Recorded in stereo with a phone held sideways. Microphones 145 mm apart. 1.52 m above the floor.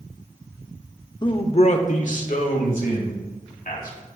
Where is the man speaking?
30° left (ahead or behind), 0.6 m; by 4.0 s 80° left, 2.5 m.